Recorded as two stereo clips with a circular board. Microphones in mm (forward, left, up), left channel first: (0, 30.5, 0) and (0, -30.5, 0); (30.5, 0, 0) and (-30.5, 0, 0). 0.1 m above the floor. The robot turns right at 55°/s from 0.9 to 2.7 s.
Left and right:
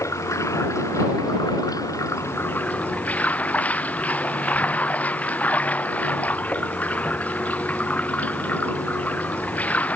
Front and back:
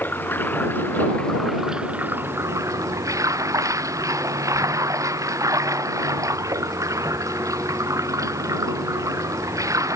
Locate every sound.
0.0 s running water: 55° left; by 10.0 s 155° left